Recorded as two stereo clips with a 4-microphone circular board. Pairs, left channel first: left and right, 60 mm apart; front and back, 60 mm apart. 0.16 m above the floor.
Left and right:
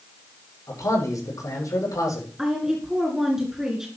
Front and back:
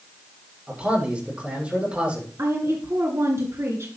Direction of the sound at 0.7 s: 110° left.